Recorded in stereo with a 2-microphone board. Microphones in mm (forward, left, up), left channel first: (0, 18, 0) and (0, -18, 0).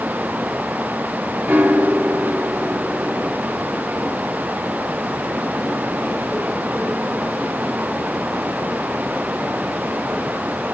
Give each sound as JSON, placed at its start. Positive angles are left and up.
{"t": 1.5, "sound": "a piano", "side_deg": -85, "distance_m": 2.5}